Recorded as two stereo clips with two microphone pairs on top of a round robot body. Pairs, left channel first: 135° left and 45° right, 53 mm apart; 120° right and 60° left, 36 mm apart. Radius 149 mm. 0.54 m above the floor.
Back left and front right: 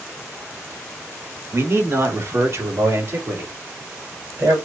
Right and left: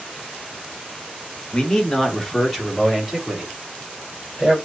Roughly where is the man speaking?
Ahead right.